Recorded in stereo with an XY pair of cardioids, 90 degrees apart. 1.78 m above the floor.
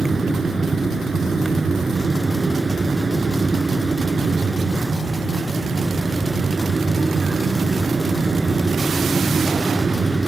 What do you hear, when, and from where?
0.0 s a fan: 25° right